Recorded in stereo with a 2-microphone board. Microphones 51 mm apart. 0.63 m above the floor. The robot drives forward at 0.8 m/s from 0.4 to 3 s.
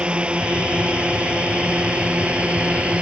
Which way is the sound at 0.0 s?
20° right (ahead or behind).